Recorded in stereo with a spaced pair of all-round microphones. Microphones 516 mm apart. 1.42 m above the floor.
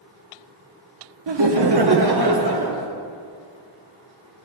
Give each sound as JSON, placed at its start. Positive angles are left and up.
{"t": 1.3, "sound": "laughter", "side_deg": -55, "distance_m": 0.7}